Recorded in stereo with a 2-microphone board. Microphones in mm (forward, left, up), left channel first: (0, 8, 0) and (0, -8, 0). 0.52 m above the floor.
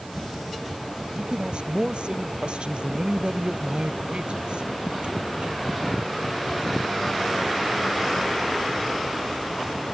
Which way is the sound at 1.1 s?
80° right.